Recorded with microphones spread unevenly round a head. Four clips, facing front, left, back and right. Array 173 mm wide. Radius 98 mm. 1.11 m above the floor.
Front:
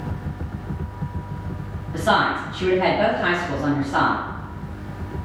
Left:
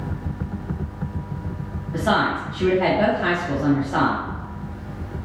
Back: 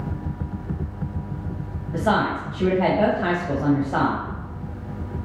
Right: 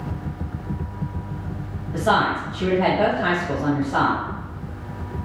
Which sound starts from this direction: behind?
A woman speaking, at 1.9 s.